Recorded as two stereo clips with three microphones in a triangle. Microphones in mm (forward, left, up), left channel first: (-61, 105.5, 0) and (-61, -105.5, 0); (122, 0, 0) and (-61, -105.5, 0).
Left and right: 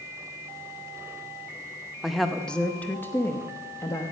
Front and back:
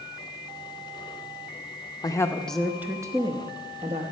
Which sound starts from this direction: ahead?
A woman speaking, at 2.0 s.